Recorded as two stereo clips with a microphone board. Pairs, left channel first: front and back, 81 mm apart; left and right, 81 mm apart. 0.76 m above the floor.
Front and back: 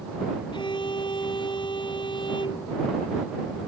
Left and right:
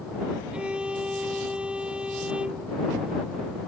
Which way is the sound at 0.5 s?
15° right.